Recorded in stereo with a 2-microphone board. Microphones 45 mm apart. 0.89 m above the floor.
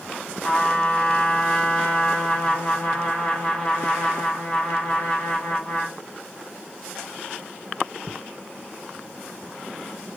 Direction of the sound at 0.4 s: 20° left (ahead or behind).